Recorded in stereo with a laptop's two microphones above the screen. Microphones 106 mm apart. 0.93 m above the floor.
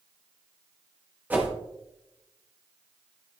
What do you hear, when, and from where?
1.3 s a whoosh: 15° right (ahead or behind), 1.4 m